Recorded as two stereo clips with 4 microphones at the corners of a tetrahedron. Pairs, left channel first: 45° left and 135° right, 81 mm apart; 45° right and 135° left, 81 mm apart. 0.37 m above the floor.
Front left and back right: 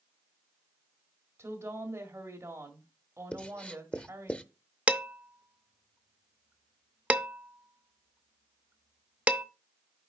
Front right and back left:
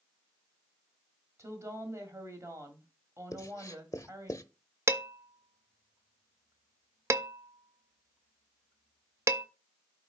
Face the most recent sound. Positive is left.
turn(degrees=160)